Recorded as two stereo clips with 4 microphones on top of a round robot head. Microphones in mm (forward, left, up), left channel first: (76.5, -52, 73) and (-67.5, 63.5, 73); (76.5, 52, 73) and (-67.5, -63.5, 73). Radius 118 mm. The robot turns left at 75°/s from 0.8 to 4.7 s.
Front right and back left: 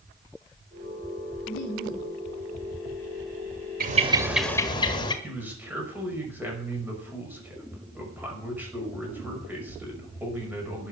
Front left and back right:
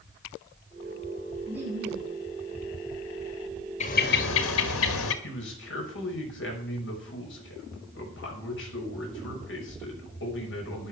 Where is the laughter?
50° right, 7 m; by 2.2 s 105° right, 7 m.